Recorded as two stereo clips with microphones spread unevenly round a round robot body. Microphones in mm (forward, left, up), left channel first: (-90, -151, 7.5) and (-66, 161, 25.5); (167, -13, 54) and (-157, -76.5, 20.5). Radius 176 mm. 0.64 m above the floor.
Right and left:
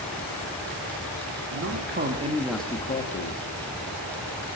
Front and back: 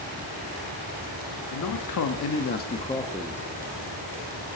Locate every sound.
1.5 s a man speaking: 45° left, 2 m; by 3.4 s 95° right, 1.6 m